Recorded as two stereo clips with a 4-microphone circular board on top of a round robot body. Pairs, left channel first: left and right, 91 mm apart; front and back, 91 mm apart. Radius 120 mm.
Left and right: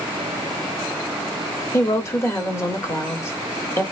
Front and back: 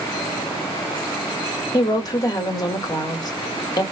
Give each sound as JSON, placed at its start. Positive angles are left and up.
{"t": 1.7, "sound": "a woman speaking", "azimuth_deg": 35, "distance_m": 1.2}